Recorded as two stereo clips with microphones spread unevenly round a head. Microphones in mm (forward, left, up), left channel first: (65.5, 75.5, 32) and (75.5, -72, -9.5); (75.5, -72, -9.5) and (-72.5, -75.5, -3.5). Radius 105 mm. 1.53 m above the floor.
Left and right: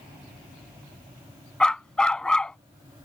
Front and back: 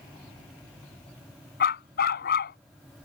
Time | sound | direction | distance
1.6 | a dog barking | 15° left | ?